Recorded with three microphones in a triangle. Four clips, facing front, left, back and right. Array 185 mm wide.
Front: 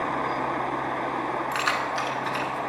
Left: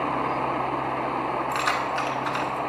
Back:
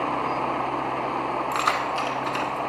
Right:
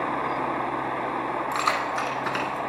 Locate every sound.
1.5 s keys jangling: 155° right, 1.0 m; by 2.6 s 90° right, 1.7 m